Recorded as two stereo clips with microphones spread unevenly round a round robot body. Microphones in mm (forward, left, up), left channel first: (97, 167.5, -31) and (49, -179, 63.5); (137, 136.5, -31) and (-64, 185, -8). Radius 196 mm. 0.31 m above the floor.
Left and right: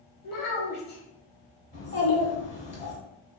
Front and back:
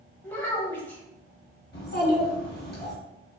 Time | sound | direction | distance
0.2 | a child speaking | 60° left | 1.1 m
1.7 | a child speaking | 20° left | 1.4 m